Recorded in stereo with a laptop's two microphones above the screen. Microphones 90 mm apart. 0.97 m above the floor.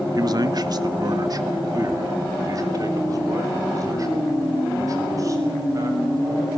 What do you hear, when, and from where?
0.1 s a man speaking: 45° right (ahead or behind), 0.9 m; by 6.6 s 40° right (ahead or behind), 6.5 m